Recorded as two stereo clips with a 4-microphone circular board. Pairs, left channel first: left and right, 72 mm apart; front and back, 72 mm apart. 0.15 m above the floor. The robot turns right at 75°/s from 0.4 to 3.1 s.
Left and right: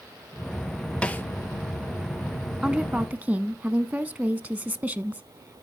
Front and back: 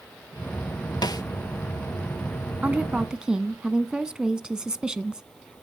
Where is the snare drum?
15° left, 0.6 m; by 1.2 s 30° left, 0.6 m.